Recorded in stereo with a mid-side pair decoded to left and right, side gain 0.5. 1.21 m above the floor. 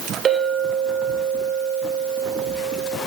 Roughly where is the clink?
Ahead right.